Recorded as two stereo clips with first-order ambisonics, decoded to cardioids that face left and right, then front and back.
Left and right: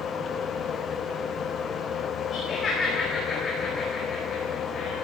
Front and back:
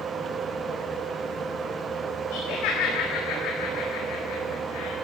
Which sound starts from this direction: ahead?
Laughter, at 2.3 s.